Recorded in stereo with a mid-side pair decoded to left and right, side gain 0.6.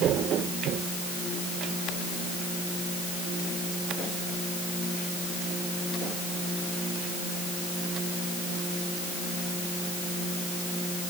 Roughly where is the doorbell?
I don't hear a doorbell.